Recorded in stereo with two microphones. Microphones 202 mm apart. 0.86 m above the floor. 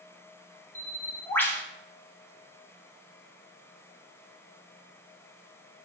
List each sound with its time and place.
0.8 s a bird: 10° left (ahead or behind), 0.5 m